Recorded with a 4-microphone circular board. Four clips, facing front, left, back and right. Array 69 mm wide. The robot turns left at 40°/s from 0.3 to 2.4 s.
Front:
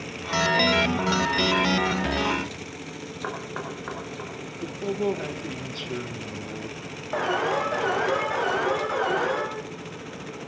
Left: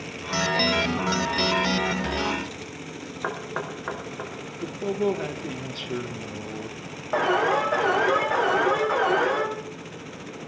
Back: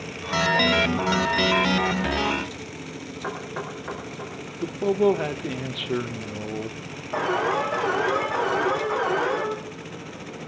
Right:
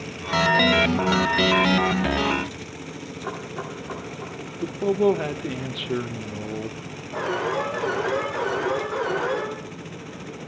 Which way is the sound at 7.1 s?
75° left.